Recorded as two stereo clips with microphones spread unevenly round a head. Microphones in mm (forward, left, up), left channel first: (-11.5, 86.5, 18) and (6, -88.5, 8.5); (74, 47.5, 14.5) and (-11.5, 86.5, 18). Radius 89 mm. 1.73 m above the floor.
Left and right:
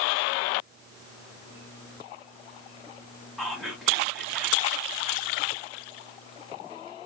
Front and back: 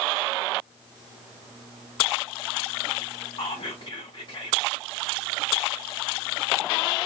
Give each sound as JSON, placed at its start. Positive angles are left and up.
{"t": 3.4, "sound": "whispering", "azimuth_deg": 5, "distance_m": 1.4}